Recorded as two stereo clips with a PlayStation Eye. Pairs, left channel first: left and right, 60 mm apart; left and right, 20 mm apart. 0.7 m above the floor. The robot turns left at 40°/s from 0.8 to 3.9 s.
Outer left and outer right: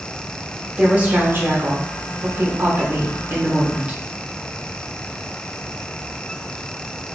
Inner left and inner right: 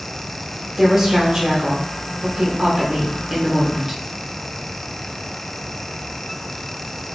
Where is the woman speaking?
25° right, 0.9 m; by 4.0 s 150° right, 0.9 m.